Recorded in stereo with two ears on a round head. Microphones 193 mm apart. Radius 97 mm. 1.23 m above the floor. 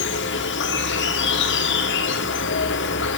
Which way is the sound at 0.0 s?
60° left (ahead or behind).